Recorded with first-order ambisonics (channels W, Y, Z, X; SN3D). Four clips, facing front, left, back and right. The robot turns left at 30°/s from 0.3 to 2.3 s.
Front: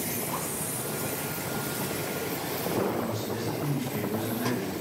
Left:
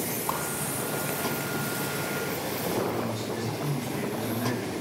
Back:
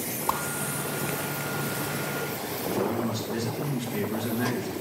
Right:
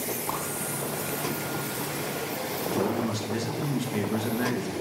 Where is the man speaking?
105° right, 1.1 m.